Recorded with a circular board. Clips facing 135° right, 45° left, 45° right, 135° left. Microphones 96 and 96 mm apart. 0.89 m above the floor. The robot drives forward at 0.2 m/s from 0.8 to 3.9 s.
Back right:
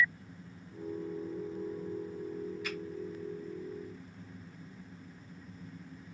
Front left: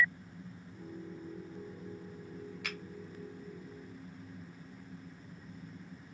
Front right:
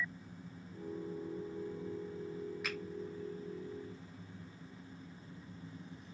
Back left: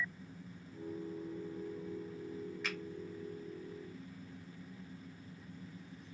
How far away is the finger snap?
About 0.8 m.